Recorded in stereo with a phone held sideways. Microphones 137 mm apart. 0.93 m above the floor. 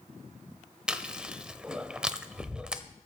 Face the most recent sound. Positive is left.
turn(degrees=-5)  # may be behind; listen again after turning